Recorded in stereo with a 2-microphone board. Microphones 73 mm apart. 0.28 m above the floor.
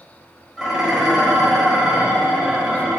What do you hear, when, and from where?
0.6 s dishes clattering: centre (ahead or behind), 0.6 m